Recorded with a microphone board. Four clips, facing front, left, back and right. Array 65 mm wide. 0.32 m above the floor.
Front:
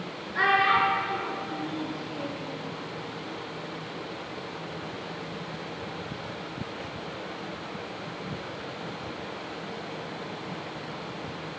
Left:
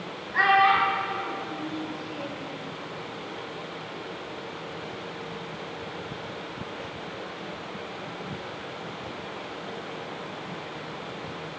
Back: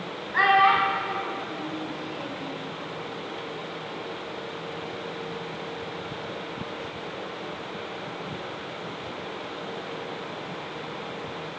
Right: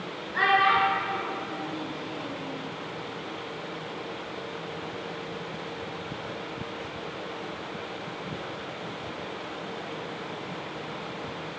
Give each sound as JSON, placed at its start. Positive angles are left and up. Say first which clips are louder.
{"t": 0.3, "sound": "a child speaking", "louder": "left 2 dB, back 3 dB", "azimuth_deg": 165, "distance_m": 1.9}